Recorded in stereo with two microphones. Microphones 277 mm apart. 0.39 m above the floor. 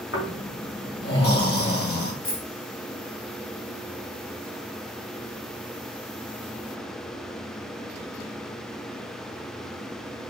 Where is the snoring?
55° left (ahead or behind), 1.6 m.